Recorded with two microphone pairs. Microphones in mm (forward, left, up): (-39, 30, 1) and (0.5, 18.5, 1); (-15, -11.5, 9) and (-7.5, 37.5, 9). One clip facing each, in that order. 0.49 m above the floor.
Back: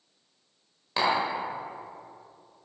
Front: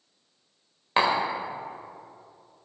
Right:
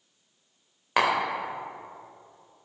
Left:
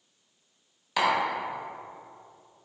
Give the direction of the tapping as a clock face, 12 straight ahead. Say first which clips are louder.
Front 2 dB, right 1 dB; 2 o'clock.